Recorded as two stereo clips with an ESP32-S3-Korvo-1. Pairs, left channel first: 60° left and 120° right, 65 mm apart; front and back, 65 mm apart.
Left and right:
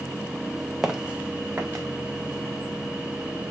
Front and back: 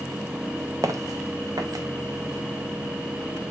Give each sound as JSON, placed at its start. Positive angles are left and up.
{"t": 0.8, "sound": "footsteps", "azimuth_deg": 160, "distance_m": 0.7}